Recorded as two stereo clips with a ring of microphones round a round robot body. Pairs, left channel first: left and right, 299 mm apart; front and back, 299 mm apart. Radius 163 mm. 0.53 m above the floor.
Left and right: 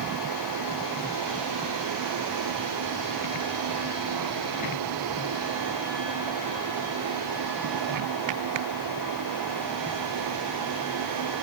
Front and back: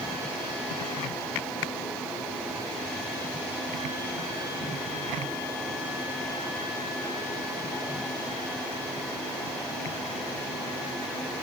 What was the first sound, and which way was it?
Only background noise.